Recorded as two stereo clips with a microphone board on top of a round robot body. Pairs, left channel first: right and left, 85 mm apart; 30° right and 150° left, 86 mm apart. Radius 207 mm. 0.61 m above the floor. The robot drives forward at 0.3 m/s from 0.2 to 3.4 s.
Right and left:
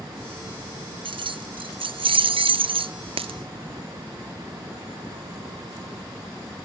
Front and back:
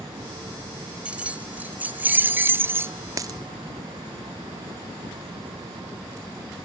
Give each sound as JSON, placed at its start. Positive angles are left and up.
{"t": 1.1, "sound": "keys jangling", "azimuth_deg": 75}
{"t": 3.2, "sound": "a dropped coin", "azimuth_deg": 100}